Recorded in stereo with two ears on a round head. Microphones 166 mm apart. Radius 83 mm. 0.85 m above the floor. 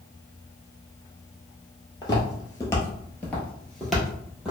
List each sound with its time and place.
2.0 s footsteps: 20° left (ahead or behind), 0.9 m; by 4.5 s 5° right (ahead or behind), 1.1 m